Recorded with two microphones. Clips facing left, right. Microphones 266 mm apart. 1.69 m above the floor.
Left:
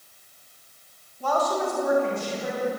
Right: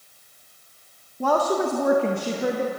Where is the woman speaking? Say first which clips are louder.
Right 4 dB; 70° right (ahead or behind), 1.8 m; by 2.7 s 75° right (ahead or behind), 3 m.